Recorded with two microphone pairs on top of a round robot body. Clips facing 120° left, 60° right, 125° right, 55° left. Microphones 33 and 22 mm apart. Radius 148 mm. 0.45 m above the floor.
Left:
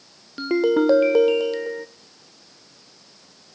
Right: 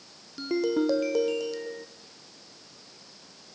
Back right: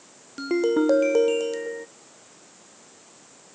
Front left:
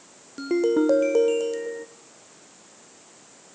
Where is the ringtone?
160° left, 1.1 m.